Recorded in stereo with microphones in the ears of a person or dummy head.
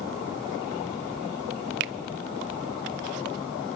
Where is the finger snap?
60° right (ahead or behind), 0.6 m.